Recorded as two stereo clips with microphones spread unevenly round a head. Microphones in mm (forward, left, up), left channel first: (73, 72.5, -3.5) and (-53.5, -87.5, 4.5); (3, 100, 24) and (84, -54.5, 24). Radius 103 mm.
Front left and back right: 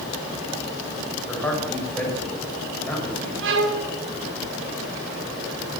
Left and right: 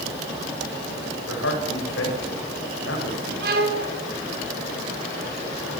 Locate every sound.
1.3 s a man speaking: 135° left, 7.5 m
3.4 s a violin: 105° right, 4 m